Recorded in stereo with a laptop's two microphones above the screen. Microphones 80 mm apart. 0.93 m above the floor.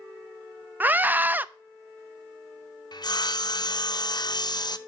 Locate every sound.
0.8 s a scream: 25° right (ahead or behind), 0.6 m
2.9 s sawing: 60° left (ahead or behind), 0.6 m